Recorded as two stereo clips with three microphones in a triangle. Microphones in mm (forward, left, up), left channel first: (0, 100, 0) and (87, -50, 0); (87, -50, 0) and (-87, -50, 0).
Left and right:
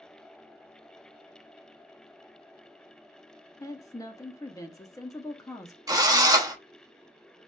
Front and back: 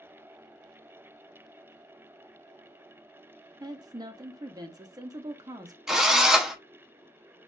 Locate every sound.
3.6 s a woman speaking: 155° left, 0.5 m
5.9 s a drill: 95° right, 0.6 m